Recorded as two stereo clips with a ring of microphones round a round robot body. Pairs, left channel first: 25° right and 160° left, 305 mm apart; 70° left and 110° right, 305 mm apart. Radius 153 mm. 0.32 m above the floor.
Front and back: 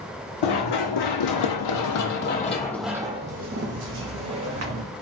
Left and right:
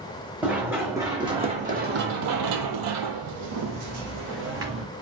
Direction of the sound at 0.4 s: 25° right.